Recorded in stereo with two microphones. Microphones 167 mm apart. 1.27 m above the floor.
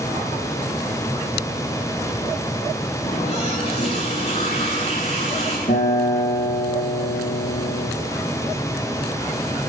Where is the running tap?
40° left (ahead or behind), 9.5 m.